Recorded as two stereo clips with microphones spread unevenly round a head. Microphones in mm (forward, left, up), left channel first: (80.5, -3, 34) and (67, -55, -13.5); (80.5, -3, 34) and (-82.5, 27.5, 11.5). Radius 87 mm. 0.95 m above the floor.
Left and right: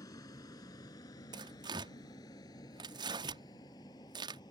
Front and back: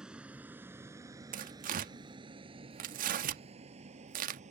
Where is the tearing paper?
140° right.